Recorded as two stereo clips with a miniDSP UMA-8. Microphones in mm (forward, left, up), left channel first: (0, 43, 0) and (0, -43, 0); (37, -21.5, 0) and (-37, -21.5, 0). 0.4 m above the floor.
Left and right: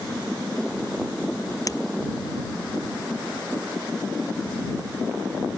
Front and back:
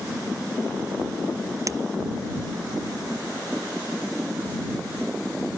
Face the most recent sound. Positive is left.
turn(degrees=135)